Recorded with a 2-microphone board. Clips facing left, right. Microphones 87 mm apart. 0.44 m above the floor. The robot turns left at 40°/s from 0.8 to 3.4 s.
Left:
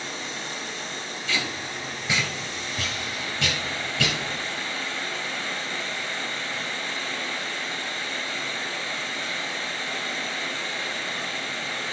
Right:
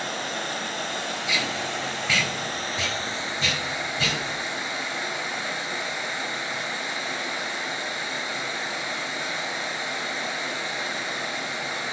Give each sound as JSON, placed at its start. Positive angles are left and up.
{"t": 0.0, "sound": "running water", "azimuth_deg": -60, "distance_m": 1.0}
{"t": 1.3, "sound": "tape being pulled", "side_deg": -10, "distance_m": 2.5}